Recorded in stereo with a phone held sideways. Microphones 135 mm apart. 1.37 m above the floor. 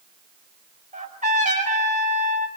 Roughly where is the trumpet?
Right.